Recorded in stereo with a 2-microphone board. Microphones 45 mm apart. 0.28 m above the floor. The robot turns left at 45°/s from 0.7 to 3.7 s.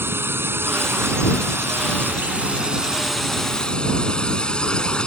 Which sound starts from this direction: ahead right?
A drone, at 0.0 s.